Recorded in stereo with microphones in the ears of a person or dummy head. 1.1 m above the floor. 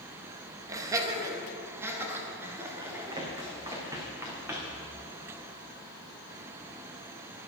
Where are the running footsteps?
25° right (ahead or behind), 3.5 m; by 4.8 s 10° right (ahead or behind), 3.5 m.